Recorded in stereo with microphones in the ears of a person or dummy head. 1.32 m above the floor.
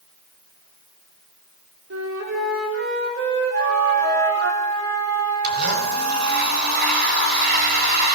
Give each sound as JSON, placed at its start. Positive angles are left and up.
{"t": 1.9, "sound": "a flute", "side_deg": -80, "distance_m": 4.0}
{"t": 3.5, "sound": "a flute", "side_deg": -65, "distance_m": 4.0}
{"t": 5.4, "sound": "a blender", "side_deg": -45, "distance_m": 4.5}